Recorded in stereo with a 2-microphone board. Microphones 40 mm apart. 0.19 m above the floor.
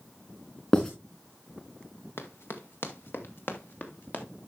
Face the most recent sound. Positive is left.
turn(degrees=45)  # may be behind; listen again after turning